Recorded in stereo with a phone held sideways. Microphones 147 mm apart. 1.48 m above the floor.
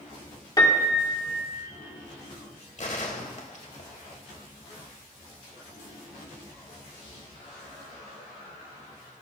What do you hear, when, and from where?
0.6 s a piano: 25° left (ahead or behind), 1.5 m
2.8 s a gunshot: 55° left (ahead or behind), 1.5 m